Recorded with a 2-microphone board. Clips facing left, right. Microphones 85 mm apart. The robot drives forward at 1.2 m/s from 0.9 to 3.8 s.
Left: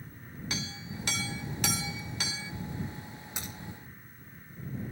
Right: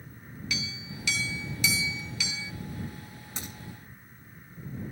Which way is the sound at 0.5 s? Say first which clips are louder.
Right 1 dB; 40° left (ahead or behind).